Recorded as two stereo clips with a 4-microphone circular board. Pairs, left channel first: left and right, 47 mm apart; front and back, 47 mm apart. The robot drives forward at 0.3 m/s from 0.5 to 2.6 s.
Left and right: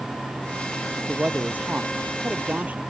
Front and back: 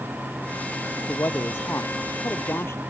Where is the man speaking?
30° right.